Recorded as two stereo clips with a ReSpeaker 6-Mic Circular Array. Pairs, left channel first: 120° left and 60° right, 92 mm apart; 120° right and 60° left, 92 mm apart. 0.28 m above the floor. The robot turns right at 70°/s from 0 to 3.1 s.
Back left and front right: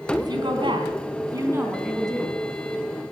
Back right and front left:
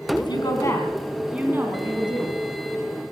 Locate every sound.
0.2 s a woman speaking: 100° right, 3 m; by 2.4 s 55° left, 3 m